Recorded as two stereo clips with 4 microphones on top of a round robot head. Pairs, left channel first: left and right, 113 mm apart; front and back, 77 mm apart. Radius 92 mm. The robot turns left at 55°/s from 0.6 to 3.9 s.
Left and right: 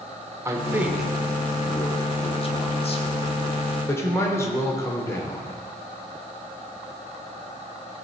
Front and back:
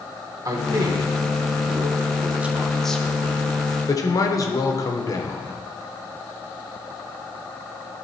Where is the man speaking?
150° right, 1.2 m; by 5.6 s 25° left, 1.2 m.